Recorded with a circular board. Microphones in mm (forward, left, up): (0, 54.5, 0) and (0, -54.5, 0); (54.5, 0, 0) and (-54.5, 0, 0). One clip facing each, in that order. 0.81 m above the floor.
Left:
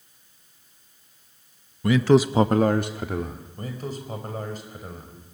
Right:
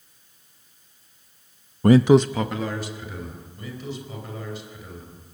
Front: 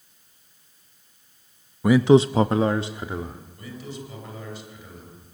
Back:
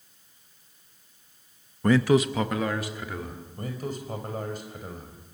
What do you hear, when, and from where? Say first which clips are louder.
1.8 s a man speaking: right 3 dB, front 5 dB; 80° right, 0.7 m; by 3.5 s 65° left, 2 m
3.6 s a man speaking: left 1 dB, back 4 dB; 140° left, 4.5 m